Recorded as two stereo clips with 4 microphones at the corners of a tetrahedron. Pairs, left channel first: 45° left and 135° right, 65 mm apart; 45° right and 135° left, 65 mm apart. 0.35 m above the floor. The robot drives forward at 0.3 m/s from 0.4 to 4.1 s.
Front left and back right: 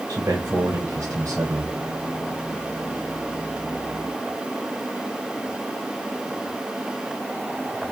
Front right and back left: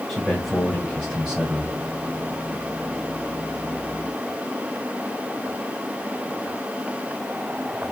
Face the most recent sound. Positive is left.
turn(degrees=-155)